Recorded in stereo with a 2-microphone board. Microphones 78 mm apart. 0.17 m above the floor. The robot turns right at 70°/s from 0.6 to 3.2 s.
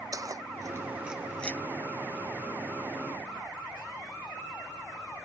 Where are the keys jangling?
45° right (ahead or behind); by 5.3 s 45° left (ahead or behind).